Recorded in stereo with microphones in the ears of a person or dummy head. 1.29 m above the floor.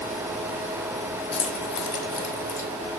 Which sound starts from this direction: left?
Keys jangling, at 1.3 s.